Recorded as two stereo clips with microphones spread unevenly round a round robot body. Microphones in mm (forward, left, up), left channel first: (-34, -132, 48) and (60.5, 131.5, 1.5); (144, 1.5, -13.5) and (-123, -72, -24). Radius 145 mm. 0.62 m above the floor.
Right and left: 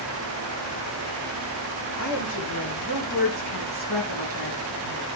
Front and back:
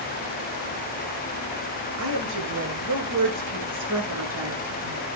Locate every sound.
2.0 s a woman speaking: 140° right, 7.5 m; by 5.1 s 120° right, 7.5 m